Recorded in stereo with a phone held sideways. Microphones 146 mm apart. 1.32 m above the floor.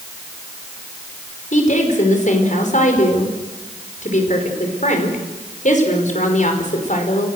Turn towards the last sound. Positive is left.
turn(degrees=55)  # may be behind; listen again after turning